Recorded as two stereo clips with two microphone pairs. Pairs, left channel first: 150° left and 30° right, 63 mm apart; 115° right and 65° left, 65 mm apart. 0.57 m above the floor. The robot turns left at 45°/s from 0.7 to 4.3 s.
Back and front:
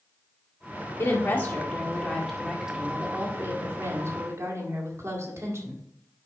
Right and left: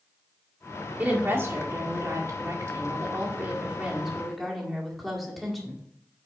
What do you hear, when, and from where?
1.0 s a woman speaking: 125° left, 1.8 m; by 5.8 s 25° right, 1.8 m